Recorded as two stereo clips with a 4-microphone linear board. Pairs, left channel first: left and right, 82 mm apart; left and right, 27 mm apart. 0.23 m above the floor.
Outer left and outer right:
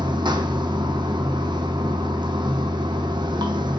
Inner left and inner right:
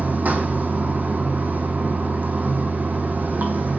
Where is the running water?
70° right (ahead or behind), 1.1 m.